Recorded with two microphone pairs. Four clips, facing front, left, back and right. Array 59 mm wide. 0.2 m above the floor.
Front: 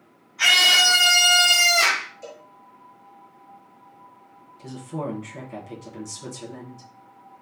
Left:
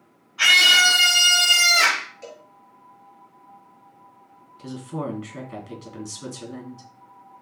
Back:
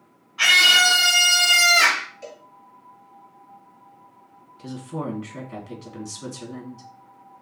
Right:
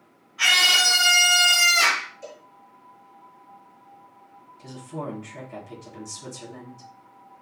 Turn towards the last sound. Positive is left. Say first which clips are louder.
# left 4 dB, back 1 dB
turn(degrees=120)